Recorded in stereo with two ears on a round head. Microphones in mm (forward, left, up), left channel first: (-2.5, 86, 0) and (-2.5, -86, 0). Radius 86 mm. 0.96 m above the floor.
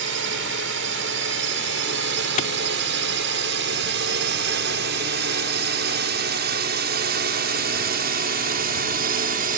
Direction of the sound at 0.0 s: 70° right (ahead or behind).